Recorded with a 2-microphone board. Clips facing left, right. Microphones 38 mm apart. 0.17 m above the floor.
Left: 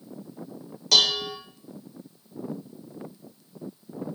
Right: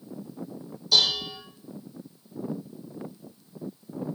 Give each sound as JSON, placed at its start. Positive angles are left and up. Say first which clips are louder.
{"t": 0.9, "sound": "dishes clattering", "louder": "left 2 dB", "side_deg": 70, "distance_m": 2.5}